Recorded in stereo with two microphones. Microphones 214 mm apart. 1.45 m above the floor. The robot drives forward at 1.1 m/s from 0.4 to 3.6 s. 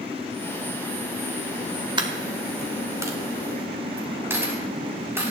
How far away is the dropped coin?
About 1.5 m.